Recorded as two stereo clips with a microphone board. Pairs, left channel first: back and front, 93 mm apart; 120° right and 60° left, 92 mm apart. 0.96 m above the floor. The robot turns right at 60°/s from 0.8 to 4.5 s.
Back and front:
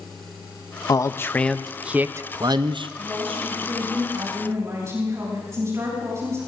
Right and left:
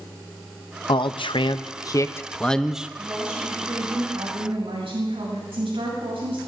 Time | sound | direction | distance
0.9 | a man speaking | 135° right | 0.6 m
3.0 | a woman speaking | 35° right | 7.5 m